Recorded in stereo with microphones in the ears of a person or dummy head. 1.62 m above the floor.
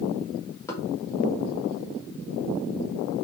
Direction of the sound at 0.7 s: 15° left (ahead or behind).